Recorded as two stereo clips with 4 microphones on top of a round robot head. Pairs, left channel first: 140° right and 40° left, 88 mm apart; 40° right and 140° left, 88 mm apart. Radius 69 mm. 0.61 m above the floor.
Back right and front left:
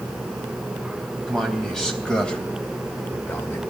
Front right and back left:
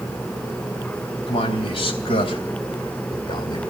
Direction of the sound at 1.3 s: 55° right.